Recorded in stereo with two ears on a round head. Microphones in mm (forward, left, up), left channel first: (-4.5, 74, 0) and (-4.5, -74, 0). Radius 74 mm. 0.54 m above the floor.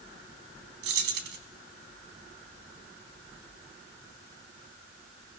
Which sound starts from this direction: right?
Keys jangling, at 0.8 s.